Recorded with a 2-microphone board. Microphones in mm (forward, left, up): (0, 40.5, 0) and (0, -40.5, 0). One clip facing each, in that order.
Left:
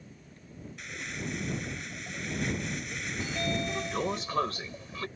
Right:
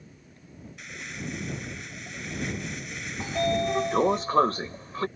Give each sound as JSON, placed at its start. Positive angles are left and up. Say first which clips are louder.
{"t": 0.8, "sound": "crumpling", "louder": "even", "side_deg": 0}
{"t": 3.2, "sound": "a sliding door", "louder": "right 8 dB", "side_deg": -40}